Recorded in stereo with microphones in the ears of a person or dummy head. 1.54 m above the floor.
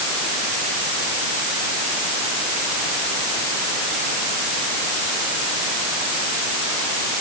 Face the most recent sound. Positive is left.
No sound to turn to.